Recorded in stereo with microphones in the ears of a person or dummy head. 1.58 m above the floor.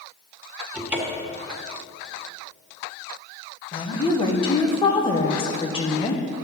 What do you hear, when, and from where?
0.7 s a cupboard door: 10° right (ahead or behind), 1.3 m
3.7 s a woman speaking: 30° left (ahead or behind), 1.0 m